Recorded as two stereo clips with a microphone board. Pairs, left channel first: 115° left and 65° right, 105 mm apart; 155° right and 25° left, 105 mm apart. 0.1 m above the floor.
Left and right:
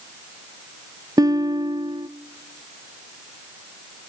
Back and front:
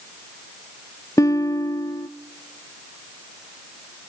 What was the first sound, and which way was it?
A guitar, 110° right.